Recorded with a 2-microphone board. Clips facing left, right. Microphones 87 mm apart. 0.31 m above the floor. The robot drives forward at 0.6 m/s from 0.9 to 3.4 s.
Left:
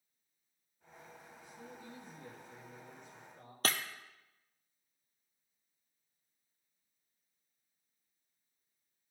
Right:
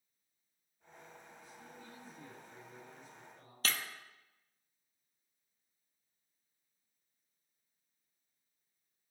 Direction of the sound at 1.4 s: 20° left (ahead or behind).